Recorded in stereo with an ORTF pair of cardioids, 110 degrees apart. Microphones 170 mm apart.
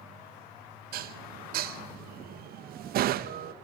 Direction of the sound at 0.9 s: 65° right.